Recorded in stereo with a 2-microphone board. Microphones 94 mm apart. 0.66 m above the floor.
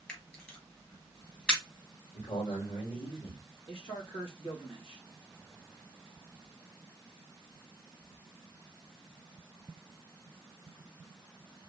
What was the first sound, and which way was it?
A camera shutter, 15° left (ahead or behind).